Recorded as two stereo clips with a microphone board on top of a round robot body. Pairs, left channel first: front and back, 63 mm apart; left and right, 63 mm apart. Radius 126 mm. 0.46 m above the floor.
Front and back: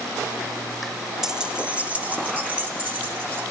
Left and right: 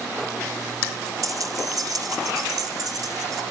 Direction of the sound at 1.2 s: 100° right.